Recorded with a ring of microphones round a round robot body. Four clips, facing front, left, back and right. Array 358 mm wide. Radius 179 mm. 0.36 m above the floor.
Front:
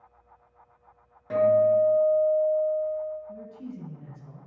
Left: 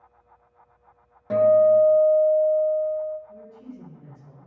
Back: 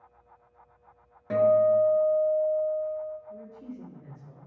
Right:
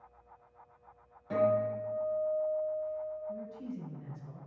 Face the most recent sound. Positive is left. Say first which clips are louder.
# right 2 dB, front 2 dB
turn(degrees=-25)